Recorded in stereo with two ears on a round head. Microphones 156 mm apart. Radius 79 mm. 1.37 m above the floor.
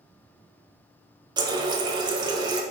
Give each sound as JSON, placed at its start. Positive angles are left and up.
{"t": 1.4, "sound": "a running tap", "side_deg": -25, "distance_m": 0.5}